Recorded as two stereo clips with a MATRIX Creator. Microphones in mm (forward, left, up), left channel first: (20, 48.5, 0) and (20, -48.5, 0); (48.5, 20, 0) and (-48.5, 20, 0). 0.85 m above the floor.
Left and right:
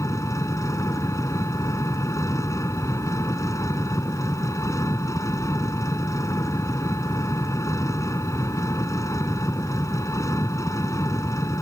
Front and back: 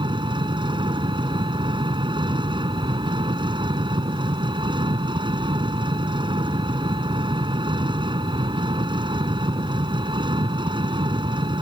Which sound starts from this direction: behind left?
An engine running, at 0.0 s.